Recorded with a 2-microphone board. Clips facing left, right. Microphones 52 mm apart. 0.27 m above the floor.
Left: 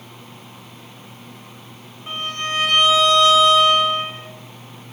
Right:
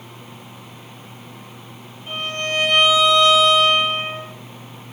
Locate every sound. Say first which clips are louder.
2.1 s a violin: right 1 dB; 35° left (ahead or behind), 1.5 m